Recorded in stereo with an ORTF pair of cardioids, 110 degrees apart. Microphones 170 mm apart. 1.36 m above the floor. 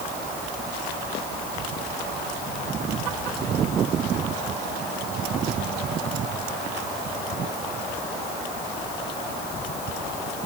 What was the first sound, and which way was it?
Only background noise.